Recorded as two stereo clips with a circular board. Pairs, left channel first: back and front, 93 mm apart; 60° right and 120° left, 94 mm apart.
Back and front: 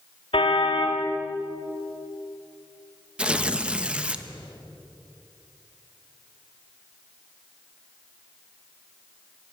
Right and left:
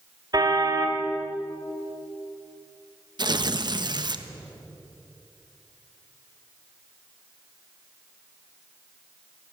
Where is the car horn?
165° left, 3 m.